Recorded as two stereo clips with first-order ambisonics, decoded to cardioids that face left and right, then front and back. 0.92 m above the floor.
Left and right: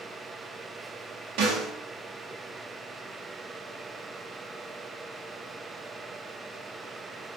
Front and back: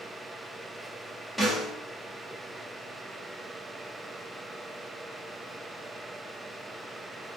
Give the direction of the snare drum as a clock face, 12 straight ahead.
3 o'clock.